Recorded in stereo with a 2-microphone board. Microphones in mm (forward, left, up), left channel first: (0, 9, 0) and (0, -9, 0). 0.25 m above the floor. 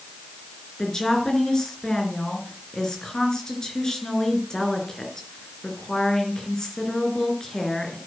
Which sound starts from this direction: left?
A woman speaking, at 0.8 s.